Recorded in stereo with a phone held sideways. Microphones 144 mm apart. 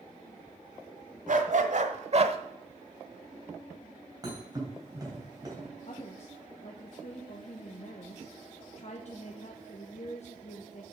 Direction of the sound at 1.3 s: 65° right (ahead or behind).